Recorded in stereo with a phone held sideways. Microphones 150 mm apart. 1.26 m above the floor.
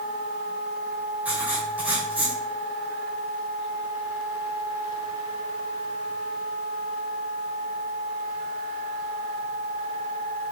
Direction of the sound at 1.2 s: 10° right (ahead or behind).